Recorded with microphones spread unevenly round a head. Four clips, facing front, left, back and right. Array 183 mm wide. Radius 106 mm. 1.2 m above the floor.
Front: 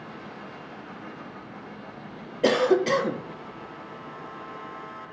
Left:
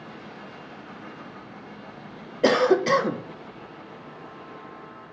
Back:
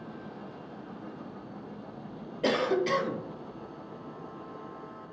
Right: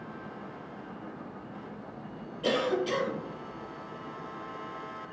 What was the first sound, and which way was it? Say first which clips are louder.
A cough: left 9 dB, front 6 dB; 60° left.